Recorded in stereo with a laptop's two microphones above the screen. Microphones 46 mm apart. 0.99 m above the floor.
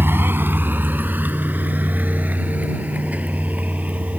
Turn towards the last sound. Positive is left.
turn(degrees=-35)  # may be behind; listen again after turning